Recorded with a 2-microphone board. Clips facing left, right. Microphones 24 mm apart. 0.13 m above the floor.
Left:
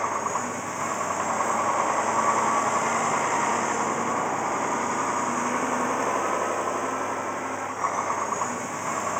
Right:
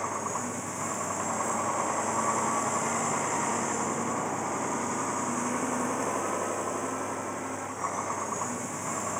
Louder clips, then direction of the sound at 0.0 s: Left 5 dB; 20° left (ahead or behind).